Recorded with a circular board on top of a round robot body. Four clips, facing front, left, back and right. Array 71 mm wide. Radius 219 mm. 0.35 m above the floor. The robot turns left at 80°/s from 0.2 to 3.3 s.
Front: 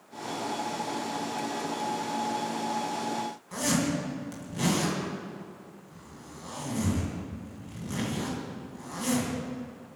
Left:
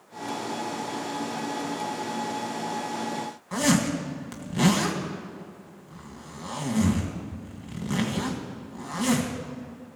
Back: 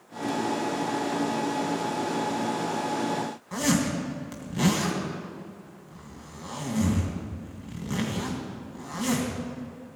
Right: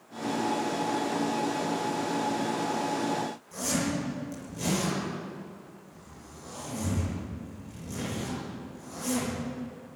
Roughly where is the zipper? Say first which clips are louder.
Left 8 dB, back 3 dB; left.